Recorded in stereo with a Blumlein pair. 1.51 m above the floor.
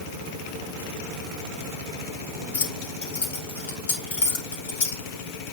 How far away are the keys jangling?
About 2.5 m.